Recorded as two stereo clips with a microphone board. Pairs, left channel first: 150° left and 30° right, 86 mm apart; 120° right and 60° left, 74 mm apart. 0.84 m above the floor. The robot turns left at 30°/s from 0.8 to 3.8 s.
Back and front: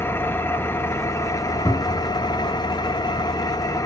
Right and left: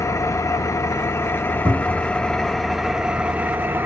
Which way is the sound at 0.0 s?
155° right.